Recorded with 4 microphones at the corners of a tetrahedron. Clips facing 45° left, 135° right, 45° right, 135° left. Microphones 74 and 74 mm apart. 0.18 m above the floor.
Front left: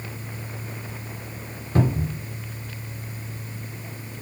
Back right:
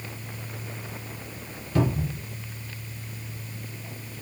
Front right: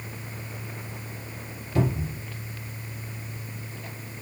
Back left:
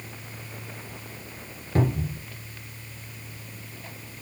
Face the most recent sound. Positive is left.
turn(degrees=95)